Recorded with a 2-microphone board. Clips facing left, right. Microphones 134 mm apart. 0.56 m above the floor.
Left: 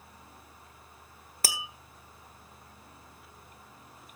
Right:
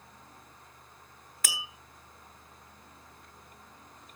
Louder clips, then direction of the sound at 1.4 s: Left 3 dB; 35° left (ahead or behind).